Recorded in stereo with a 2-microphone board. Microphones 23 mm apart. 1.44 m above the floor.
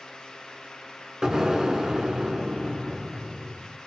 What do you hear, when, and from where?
1.2 s an explosion: 30° right (ahead or behind), 1.2 m